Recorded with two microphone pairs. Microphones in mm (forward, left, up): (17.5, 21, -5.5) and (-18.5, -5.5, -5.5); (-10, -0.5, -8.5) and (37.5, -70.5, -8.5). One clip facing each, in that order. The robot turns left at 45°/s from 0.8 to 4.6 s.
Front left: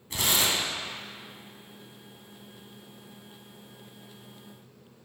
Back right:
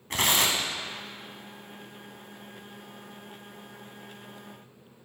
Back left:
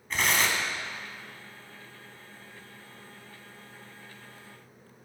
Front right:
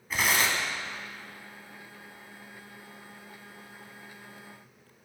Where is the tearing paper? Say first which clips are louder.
Back right 2 dB, even; 135° right, 1.0 m.